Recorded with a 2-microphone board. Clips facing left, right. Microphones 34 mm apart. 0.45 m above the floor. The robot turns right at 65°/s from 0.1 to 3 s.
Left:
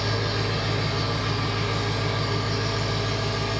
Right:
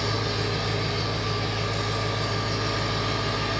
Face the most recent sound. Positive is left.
turn(degrees=-165)